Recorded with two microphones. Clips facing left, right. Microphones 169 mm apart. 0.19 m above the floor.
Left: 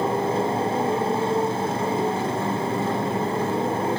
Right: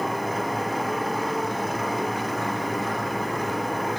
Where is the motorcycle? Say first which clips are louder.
Left 5 dB; 30° left (ahead or behind).